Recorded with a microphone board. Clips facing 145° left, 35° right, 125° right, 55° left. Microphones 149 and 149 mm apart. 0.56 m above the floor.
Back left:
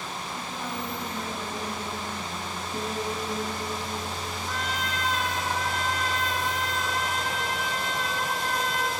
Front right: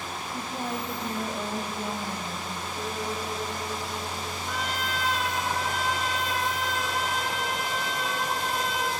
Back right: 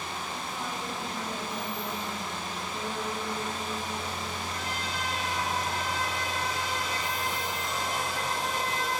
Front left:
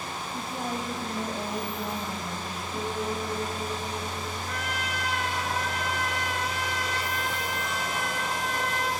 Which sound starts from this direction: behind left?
A piano, at 2.7 s.